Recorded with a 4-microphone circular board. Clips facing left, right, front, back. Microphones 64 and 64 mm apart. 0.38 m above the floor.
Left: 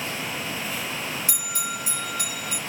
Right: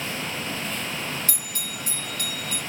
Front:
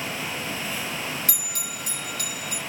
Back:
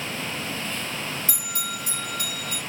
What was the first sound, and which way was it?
A bell, 15° left.